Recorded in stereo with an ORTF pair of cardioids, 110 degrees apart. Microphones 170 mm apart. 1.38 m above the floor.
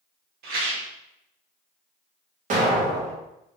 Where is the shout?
No shout in this recording.